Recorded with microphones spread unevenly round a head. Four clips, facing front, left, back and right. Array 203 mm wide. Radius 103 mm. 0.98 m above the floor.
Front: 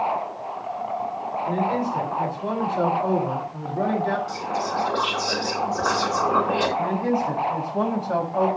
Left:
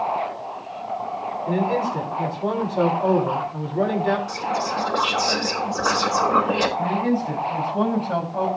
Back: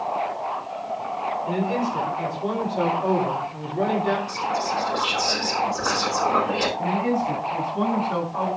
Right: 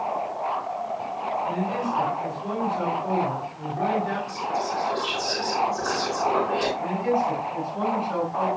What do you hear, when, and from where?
1.5 s a man speaking: 85° left, 8 m
4.3 s whispering: 60° left, 10 m
6.8 s a man speaking: 45° left, 6 m